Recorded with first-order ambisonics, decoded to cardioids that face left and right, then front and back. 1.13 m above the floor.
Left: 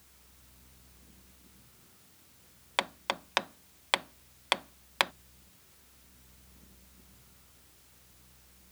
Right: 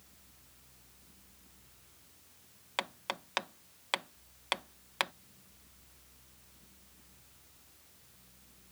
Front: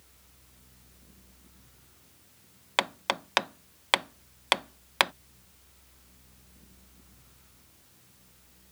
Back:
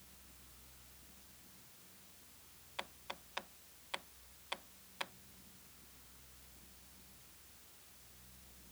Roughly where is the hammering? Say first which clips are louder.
Left 5 dB, front 19 dB; ahead.